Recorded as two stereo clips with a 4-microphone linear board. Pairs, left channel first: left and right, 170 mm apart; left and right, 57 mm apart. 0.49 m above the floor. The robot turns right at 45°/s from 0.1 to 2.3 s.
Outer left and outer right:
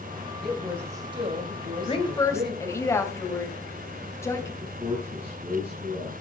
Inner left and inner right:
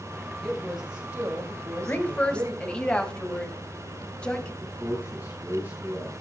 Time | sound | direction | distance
0.4 | a woman speaking | 175° left | 3 m
1.9 | a woman speaking | 35° left (ahead or behind) | 3 m
4.6 | a man speaking | 30° right (ahead or behind) | 5.5 m